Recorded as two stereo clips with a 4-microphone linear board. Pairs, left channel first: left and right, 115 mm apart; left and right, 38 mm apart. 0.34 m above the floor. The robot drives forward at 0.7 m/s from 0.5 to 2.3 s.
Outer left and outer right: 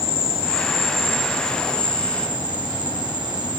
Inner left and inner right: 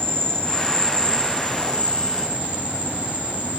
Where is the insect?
75° right (ahead or behind), 1.4 m; by 3.6 s 40° right (ahead or behind), 2 m.